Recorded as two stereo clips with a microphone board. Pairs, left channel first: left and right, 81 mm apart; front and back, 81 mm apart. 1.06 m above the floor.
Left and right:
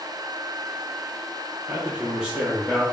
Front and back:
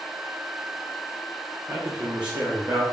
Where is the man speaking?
140° right, 1.0 m; by 2.8 s 170° left, 1.4 m.